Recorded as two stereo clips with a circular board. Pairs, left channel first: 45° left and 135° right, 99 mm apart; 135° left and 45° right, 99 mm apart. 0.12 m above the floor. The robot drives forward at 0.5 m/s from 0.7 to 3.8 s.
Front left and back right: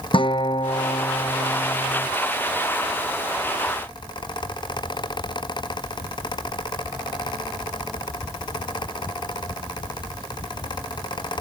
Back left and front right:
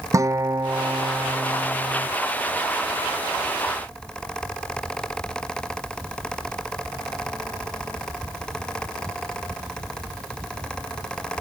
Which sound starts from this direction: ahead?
A guitar, at 0.1 s.